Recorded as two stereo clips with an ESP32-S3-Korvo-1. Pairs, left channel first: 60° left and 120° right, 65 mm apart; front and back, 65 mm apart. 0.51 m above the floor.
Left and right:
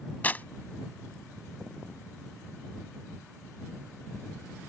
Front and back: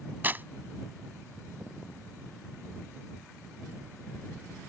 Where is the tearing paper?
120° left.